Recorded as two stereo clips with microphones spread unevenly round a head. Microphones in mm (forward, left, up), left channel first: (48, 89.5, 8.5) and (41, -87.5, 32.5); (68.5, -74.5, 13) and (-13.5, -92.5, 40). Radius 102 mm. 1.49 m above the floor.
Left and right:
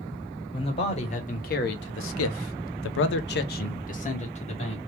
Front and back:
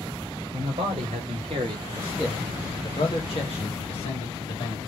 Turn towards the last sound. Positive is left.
turn(degrees=30)